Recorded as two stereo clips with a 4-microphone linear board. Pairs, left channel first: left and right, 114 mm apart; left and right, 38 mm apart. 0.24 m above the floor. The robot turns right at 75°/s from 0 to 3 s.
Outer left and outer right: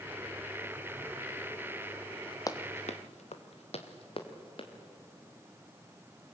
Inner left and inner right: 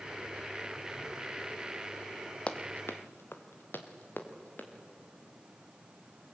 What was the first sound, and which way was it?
Running footsteps, 30° left (ahead or behind).